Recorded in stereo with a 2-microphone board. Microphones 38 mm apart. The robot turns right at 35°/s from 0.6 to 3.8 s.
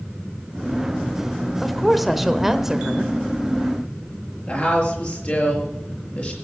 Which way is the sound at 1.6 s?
5° left (ahead or behind).